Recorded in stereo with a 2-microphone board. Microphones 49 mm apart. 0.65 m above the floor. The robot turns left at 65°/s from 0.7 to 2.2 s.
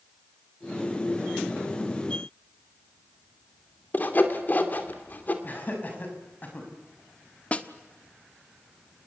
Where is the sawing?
40° left (ahead or behind), 2.5 m.